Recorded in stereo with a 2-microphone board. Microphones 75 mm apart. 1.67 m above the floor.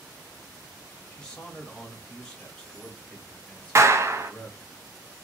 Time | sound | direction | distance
1.1 | a man speaking | 10° left (ahead or behind) | 1.2 m
3.8 | a clap | 40° right (ahead or behind) | 0.5 m